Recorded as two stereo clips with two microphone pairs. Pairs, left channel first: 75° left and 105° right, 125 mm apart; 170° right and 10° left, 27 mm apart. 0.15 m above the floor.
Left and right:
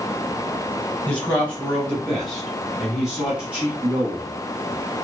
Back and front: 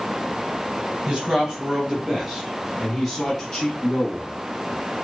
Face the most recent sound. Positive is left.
turn(degrees=-170)